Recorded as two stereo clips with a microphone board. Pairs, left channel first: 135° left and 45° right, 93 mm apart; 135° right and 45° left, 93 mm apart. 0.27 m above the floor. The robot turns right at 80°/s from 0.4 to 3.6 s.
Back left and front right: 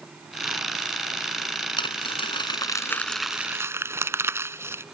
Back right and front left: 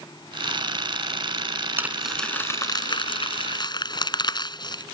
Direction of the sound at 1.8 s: 110° left.